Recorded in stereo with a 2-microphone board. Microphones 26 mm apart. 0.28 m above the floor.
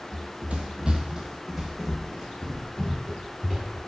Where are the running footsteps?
70° right (ahead or behind), 0.5 m; by 3.8 s 5° left (ahead or behind), 1.9 m.